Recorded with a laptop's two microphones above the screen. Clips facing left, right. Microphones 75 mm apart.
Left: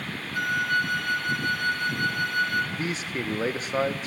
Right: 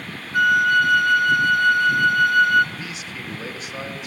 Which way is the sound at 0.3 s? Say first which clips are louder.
Right 9 dB; 70° right (ahead or behind).